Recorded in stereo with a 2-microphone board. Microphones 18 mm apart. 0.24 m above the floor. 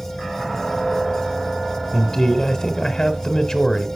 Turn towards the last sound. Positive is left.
turn(degrees=35)  # may be behind; listen again after turning